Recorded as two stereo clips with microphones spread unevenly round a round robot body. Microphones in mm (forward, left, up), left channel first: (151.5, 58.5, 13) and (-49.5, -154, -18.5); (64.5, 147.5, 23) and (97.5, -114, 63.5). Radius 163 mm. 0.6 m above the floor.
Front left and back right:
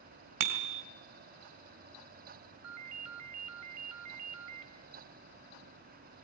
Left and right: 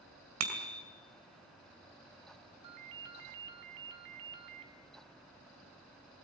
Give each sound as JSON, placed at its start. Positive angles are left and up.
{"t": 0.4, "sound": "a bicycle bell", "azimuth_deg": -125, "distance_m": 2.5}
{"t": 2.6, "sound": "a ringtone", "azimuth_deg": -105, "distance_m": 1.4}